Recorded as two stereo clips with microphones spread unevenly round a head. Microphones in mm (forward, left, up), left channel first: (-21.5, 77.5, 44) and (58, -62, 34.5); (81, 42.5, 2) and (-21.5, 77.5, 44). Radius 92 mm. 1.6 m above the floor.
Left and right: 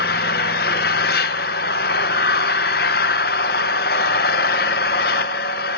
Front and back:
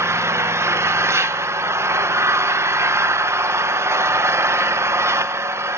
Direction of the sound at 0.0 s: 125° left.